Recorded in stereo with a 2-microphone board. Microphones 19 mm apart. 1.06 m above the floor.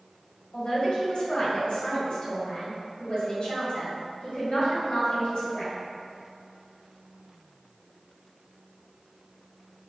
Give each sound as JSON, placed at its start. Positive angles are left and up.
{"t": 0.5, "sound": "a man speaking", "side_deg": 65, "distance_m": 1.5}